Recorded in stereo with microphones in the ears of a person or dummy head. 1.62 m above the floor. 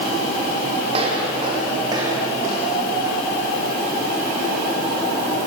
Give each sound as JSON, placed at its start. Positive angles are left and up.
{"t": 0.9, "sound": "footsteps", "side_deg": -35, "distance_m": 5.0}